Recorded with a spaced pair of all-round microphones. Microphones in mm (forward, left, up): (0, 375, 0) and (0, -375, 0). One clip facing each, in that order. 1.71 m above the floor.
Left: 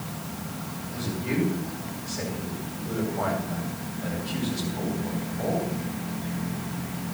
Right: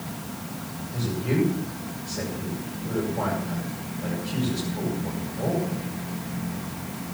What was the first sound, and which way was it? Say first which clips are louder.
A man speaking: right 3 dB; 70° right (ahead or behind).